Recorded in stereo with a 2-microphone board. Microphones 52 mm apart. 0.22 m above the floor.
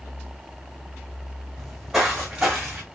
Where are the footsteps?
5° right (ahead or behind), 1.9 m; by 2.8 s 25° right (ahead or behind), 1.6 m.